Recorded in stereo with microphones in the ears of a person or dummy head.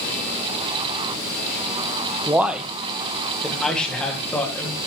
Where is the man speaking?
10° right (ahead or behind), 0.9 m; by 4.8 s 10° left (ahead or behind), 3 m.